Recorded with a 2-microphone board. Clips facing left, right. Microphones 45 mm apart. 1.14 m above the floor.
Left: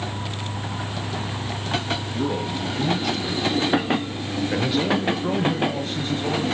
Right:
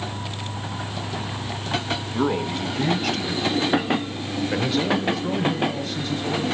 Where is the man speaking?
70° right (ahead or behind), 2 m; by 6.5 s 40° left (ahead or behind), 2.5 m.